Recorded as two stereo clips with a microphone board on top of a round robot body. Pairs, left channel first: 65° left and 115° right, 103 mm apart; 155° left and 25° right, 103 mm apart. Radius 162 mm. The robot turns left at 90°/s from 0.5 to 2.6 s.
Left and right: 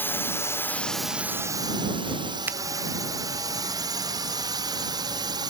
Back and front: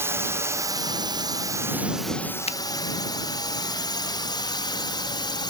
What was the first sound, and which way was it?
A drone, 20° left.